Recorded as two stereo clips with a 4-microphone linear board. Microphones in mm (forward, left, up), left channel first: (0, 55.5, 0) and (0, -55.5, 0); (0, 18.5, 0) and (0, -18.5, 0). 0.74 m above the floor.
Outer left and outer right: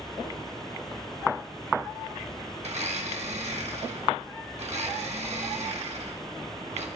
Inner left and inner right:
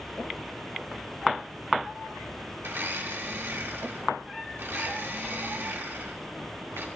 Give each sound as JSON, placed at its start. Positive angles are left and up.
{"t": 2.6, "sound": "a blender", "side_deg": -75, "distance_m": 1.1}